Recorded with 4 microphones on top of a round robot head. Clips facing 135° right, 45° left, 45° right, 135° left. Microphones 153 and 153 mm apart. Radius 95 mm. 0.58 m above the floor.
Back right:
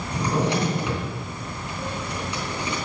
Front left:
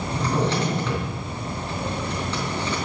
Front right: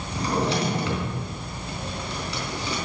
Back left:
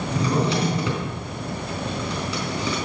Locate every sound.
0.1 s a drawer: 145° left, 4 m